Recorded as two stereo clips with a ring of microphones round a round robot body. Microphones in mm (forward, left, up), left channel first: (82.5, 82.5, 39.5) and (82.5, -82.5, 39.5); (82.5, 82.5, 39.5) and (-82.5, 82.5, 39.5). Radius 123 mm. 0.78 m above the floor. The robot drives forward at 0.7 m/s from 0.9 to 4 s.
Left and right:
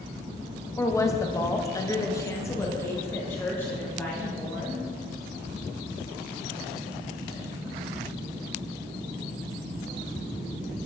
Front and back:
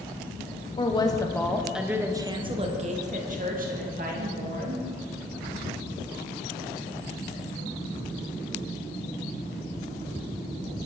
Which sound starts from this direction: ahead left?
A woman speaking, at 0.8 s.